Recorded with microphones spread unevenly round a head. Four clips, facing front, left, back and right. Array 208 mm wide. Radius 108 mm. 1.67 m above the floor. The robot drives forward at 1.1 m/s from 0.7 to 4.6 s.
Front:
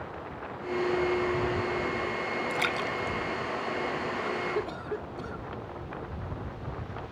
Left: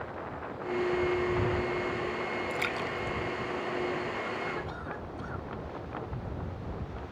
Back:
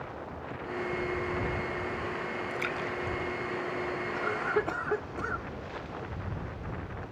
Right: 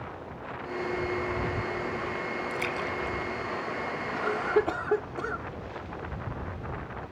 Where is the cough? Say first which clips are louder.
Right 8 dB, back 1 dB; 100° right; by 5.5 s 105° right.